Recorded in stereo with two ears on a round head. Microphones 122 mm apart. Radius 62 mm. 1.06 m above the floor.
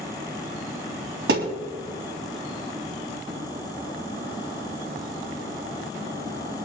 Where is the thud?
75° right (ahead or behind), 3.5 m.